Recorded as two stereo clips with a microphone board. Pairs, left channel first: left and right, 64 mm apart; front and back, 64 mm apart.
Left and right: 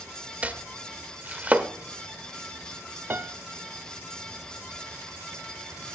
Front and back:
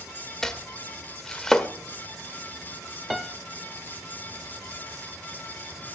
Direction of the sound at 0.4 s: 70° right.